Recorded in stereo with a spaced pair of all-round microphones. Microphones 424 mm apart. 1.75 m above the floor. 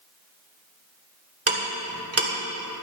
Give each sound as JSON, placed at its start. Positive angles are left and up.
{"t": 1.5, "sound": "ticking", "side_deg": -35, "distance_m": 1.6}